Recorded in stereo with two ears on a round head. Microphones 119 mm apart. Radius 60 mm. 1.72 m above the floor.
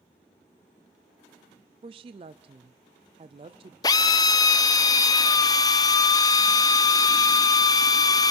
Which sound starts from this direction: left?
A drill, at 3.8 s.